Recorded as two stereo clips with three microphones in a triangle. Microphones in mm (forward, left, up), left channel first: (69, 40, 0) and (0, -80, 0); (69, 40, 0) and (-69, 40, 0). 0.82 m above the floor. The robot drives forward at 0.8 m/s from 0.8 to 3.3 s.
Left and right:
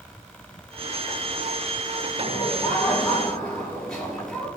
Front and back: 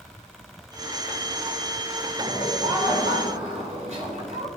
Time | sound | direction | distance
2.2 | laughter | 140° left | 6.5 m